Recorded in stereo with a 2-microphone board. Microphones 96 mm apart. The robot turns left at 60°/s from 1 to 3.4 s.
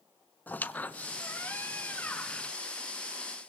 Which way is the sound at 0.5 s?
20° left (ahead or behind).